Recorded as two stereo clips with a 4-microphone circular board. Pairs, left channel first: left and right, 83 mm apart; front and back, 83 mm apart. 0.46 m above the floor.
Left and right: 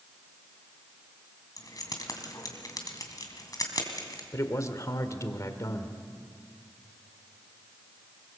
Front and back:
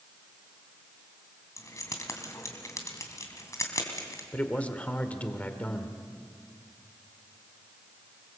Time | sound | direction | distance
1.6 | keys jangling | 50° left | 2.5 m
4.3 | a man speaking | 65° left | 1.7 m